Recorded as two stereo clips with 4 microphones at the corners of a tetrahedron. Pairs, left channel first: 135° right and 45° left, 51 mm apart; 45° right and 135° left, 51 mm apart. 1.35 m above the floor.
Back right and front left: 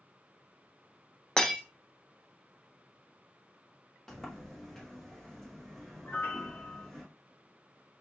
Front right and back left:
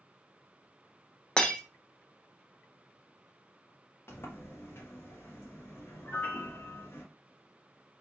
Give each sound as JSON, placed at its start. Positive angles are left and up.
{"t": 1.4, "sound": "breaking glass", "azimuth_deg": -90, "distance_m": 0.6}
{"t": 4.1, "sound": "a sliding door", "azimuth_deg": -60, "distance_m": 0.9}
{"t": 6.0, "sound": "a piano", "azimuth_deg": -95, "distance_m": 0.8}